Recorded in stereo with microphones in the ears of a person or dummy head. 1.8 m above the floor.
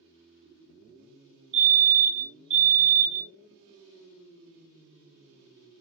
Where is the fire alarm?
30° right (ahead or behind), 2.5 m.